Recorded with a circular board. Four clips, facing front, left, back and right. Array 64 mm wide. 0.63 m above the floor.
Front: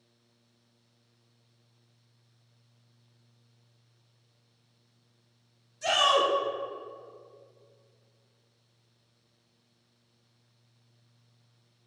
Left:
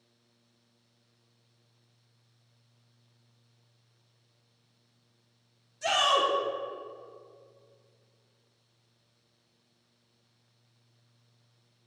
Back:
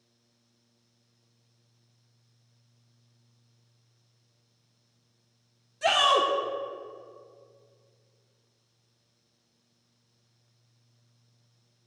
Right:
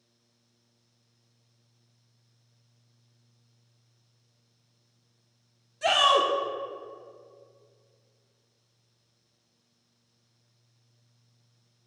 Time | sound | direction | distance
5.8 | a shout | 140° right | 1.1 m